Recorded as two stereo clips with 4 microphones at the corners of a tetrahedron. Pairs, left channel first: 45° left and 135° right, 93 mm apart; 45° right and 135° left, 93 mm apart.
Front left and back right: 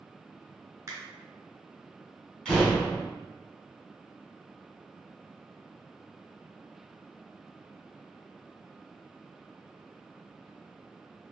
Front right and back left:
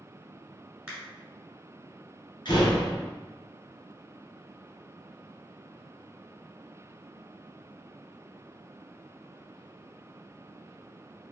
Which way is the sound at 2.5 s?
30° right.